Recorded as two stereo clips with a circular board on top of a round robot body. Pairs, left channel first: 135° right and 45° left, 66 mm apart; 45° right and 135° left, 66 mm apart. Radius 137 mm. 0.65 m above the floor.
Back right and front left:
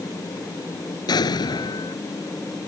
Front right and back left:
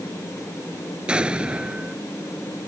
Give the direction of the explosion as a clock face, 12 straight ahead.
5 o'clock.